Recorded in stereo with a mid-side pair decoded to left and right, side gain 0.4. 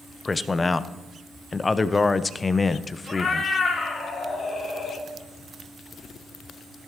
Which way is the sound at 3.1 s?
40° left.